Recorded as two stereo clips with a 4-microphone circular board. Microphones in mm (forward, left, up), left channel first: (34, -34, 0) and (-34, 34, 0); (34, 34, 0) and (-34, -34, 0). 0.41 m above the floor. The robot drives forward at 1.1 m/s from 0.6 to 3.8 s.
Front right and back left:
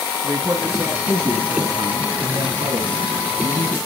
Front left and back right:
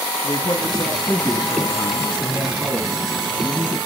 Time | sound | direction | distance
0.2 | a man speaking | 85° left | 3 m